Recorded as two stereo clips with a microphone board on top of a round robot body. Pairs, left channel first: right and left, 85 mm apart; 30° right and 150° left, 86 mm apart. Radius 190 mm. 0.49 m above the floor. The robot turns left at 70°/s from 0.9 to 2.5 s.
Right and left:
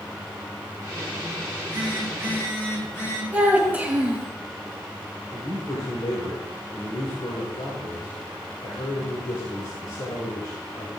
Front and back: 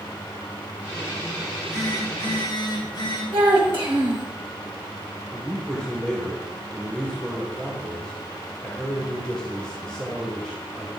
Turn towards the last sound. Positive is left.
turn(degrees=-105)